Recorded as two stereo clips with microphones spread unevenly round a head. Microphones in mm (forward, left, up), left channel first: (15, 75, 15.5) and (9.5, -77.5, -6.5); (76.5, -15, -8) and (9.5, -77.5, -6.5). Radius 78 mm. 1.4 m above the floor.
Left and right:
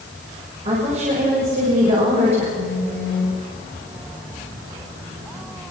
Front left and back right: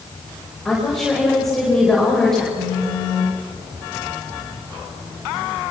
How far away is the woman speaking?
About 6.5 m.